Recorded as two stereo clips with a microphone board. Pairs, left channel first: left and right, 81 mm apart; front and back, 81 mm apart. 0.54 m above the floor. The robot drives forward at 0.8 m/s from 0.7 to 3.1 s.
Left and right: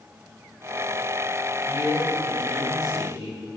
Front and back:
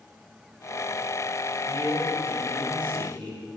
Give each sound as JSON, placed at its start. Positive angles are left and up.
{"t": 1.7, "sound": "a man speaking", "azimuth_deg": -170, "distance_m": 2.5}